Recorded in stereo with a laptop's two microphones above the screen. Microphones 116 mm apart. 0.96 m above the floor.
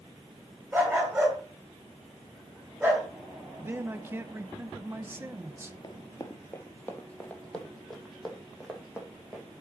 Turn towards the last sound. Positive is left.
turn(degrees=-5)  # may be behind; listen again after turning